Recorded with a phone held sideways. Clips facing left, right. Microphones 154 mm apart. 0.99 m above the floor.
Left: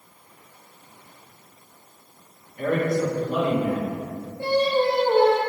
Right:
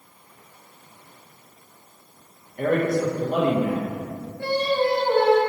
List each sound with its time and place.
2.6 s a man speaking: 50° right (ahead or behind), 0.7 m
4.4 s singing: 25° left (ahead or behind), 0.5 m